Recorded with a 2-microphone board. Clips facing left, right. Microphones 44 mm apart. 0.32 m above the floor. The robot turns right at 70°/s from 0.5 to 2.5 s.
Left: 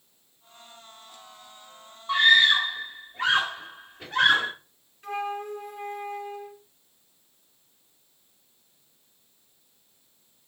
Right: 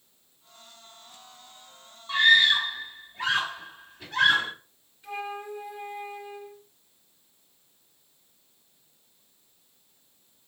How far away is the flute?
About 3 m.